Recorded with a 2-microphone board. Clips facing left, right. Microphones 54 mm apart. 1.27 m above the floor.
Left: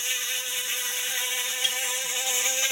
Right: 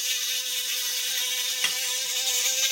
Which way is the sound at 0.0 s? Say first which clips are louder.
Left 1 dB; 25° left (ahead or behind).